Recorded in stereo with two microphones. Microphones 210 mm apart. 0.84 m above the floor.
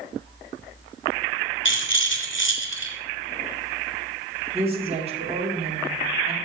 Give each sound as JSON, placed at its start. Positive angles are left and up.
{"t": 1.6, "sound": "a rattle", "side_deg": 65, "distance_m": 2.0}
{"t": 4.5, "sound": "a woman speaking", "side_deg": -30, "distance_m": 2.5}